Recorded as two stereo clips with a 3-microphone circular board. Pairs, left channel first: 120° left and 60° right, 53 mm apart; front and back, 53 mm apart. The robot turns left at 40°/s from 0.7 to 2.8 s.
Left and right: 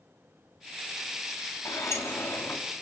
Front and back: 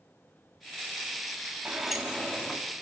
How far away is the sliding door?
About 3 m.